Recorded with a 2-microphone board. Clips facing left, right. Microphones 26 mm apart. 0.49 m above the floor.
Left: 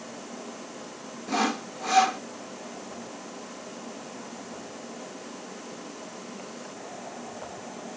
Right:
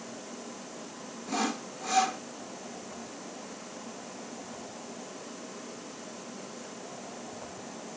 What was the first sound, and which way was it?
Sawing, 25° left (ahead or behind).